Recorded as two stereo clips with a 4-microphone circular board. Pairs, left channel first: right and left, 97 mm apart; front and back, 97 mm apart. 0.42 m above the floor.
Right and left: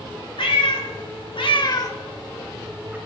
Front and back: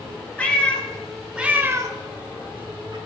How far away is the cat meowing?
About 1.3 m.